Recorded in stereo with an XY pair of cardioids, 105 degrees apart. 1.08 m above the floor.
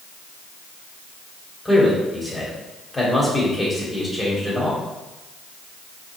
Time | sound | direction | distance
1.6 | a man speaking | 20° left | 3 m